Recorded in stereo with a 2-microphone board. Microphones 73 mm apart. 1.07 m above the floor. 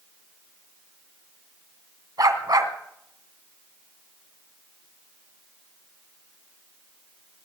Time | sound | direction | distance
2.2 | a dog barking | 60° right (ahead or behind) | 1.9 m